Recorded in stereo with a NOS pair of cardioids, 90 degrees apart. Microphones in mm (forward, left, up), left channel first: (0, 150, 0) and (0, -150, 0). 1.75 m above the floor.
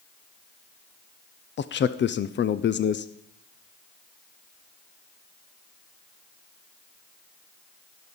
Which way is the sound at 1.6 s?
40° left.